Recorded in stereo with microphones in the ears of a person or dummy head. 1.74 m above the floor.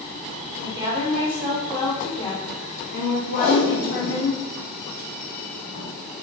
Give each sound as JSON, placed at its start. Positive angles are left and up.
{"t": 0.6, "sound": "a woman speaking", "side_deg": -15, "distance_m": 1.0}
{"t": 3.4, "sound": "tape being pulled", "side_deg": 55, "distance_m": 1.9}